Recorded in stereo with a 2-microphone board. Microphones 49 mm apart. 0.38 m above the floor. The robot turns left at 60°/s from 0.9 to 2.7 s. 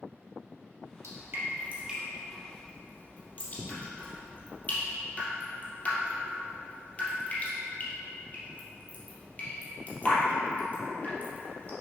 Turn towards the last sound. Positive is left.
turn(degrees=30)  # may be behind; listen again after turning